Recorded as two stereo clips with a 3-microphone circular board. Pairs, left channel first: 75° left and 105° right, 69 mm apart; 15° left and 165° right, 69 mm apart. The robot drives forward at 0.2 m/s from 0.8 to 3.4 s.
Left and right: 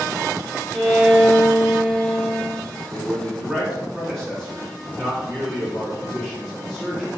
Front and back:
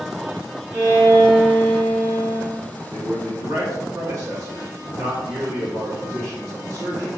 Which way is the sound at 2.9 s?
160° left.